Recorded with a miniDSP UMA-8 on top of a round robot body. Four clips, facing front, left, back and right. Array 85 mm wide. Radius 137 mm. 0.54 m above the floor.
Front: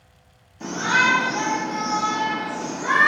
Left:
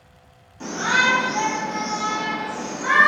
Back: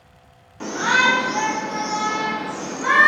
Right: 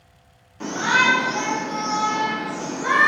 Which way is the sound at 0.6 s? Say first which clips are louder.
Right 1 dB, back 2 dB; 160° right.